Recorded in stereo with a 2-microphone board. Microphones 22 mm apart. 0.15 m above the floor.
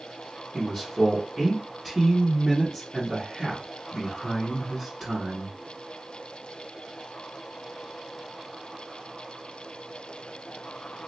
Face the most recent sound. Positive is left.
turn(degrees=-10)  # may be behind; listen again after turning